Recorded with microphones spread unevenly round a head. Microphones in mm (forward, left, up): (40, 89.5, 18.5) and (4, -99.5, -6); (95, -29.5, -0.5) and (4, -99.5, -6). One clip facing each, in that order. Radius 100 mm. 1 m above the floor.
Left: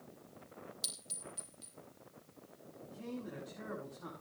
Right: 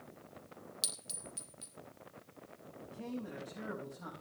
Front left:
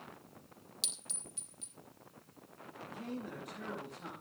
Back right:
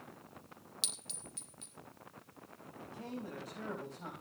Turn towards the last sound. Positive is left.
turn(degrees=-85)